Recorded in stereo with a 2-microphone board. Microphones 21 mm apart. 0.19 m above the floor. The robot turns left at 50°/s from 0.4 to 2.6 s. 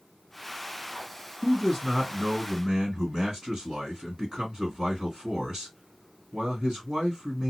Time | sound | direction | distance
1.4 | a man speaking | 5° left | 1.9 m